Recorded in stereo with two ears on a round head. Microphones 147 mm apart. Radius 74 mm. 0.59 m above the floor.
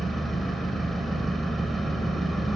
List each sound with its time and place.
0.0 s an engine running: centre (ahead or behind), 1.8 m